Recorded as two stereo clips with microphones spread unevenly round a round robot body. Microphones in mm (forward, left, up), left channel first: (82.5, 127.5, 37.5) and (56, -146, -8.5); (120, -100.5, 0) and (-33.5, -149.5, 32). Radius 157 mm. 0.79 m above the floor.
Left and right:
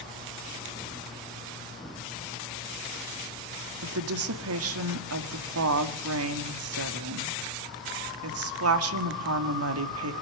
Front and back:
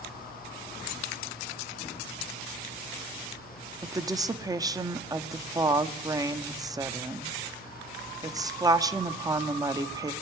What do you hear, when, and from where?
3.8 s a woman speaking: 90° right, 1.9 m